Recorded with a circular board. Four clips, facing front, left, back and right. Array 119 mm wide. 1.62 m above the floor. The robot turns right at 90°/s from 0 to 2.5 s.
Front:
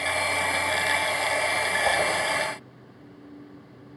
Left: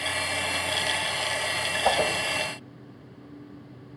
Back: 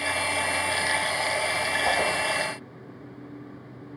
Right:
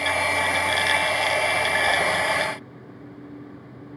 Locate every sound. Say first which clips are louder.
1.9 s a whoosh: left 3 dB, even; 70° left, 5.5 m; by 2.1 s 95° left, 5.5 m